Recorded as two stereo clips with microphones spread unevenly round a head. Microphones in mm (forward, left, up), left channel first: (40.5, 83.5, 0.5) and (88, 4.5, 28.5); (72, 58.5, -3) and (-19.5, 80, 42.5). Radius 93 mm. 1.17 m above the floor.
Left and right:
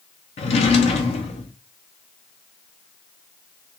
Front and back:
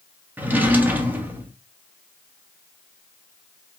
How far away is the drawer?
About 0.8 m.